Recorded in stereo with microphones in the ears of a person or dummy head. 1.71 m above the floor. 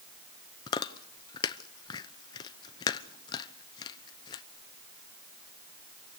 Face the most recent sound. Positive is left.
turn(degrees=30)  # may be behind; listen again after turning